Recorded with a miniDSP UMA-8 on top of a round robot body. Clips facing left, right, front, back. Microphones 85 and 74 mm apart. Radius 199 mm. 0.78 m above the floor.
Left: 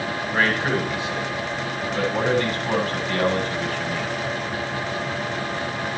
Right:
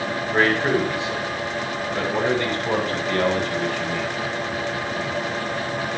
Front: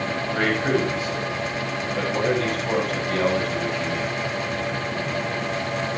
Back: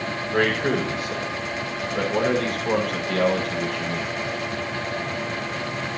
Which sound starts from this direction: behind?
A man speaking, at 0.3 s.